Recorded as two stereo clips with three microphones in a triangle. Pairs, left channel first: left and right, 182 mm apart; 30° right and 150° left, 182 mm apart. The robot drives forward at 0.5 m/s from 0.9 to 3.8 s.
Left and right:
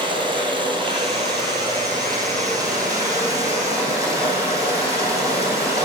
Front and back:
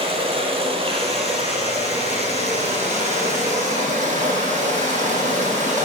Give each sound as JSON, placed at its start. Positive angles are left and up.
{"t": 0.0, "sound": "running water", "azimuth_deg": -150, "distance_m": 2.5}